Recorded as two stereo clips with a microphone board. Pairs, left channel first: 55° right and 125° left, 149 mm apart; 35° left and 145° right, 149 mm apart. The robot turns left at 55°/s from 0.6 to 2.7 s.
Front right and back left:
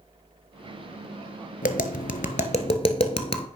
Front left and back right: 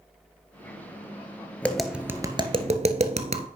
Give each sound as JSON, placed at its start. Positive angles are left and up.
{"t": 1.6, "sound": "tapping", "azimuth_deg": -45, "distance_m": 0.7}